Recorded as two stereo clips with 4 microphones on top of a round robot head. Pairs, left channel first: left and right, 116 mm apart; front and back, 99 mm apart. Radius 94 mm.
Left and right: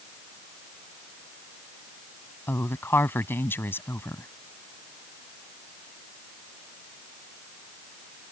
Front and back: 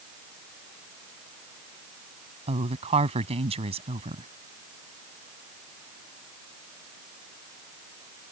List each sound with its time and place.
2.5 s a woman speaking: 160° left